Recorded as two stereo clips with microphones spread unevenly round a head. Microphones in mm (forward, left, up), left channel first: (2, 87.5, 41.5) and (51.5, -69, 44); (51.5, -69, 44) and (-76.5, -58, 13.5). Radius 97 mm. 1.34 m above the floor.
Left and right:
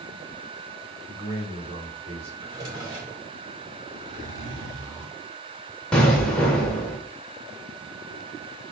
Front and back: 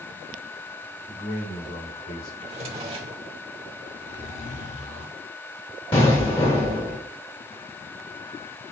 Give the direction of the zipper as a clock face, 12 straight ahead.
12 o'clock.